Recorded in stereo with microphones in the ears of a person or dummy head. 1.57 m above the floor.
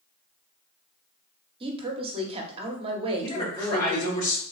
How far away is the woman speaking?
About 0.8 m.